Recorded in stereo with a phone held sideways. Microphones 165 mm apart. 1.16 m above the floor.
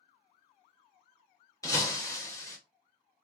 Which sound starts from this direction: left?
Breaking glass, at 1.6 s.